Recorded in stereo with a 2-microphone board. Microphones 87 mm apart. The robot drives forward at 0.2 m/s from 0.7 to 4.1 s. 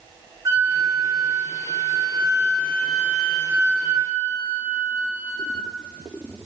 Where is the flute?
45° right (ahead or behind), 0.8 m; by 5.7 s 25° right (ahead or behind), 1.3 m.